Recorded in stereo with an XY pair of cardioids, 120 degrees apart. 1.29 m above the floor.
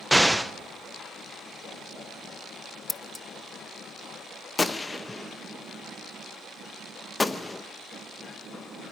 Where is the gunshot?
15° left, 0.8 m.